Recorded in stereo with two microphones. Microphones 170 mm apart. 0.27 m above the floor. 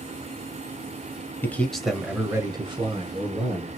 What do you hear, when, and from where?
1.4 s a man speaking: 10° left (ahead or behind), 1.0 m; by 3.8 s 50° right (ahead or behind), 1.4 m